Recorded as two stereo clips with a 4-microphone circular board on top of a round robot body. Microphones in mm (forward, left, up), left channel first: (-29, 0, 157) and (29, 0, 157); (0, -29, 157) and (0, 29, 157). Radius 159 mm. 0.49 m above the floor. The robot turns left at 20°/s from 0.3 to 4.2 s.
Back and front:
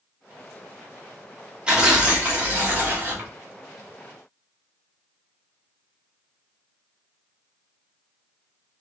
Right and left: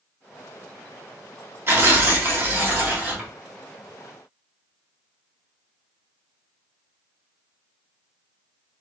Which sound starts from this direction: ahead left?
Tearing paper, at 1.7 s.